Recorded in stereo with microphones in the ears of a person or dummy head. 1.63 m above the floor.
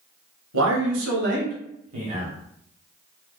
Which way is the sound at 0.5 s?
80° right.